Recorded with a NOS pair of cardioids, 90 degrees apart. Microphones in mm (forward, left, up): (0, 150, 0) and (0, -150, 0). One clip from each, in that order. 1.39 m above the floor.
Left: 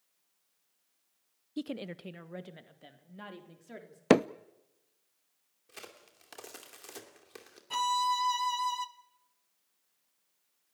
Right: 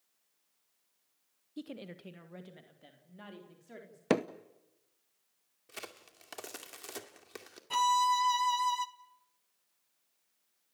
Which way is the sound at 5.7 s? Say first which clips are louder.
Right 3 dB; 25° right.